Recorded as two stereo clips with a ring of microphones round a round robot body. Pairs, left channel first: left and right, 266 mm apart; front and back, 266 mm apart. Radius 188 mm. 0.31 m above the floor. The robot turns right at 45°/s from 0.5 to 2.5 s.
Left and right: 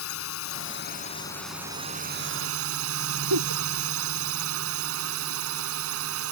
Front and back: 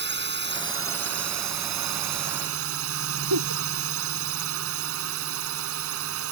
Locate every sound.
0.0 s a drone: 135° left; by 6.3 s 135° right
3.3 s a giggle: 135° right